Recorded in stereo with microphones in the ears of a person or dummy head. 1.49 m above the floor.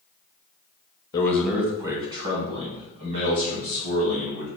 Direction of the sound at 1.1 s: 25° left (ahead or behind).